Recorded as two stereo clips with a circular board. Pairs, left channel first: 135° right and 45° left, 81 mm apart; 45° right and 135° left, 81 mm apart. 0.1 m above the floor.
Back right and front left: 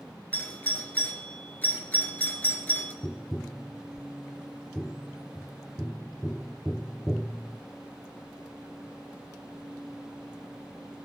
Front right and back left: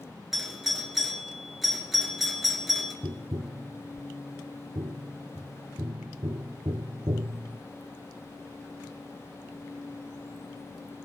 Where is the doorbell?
140° right, 2 m.